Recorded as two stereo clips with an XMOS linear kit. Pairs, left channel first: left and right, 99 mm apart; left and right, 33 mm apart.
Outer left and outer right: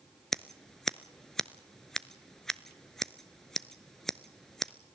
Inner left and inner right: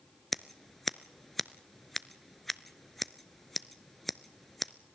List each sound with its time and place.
0.3 s scissors: 5° left (ahead or behind), 0.5 m